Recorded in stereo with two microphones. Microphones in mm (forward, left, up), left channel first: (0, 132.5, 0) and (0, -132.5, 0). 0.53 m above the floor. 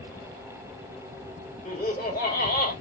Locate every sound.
1.6 s laughter: 35° left (ahead or behind), 1.6 m